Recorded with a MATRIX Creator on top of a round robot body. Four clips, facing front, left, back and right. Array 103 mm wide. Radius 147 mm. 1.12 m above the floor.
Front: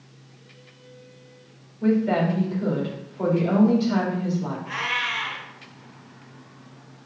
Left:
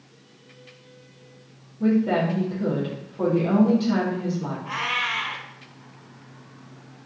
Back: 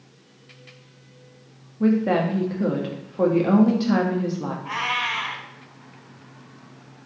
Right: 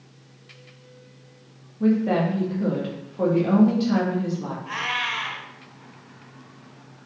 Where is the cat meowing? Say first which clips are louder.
Right 1 dB, back 2 dB; 170° left, 3.5 m.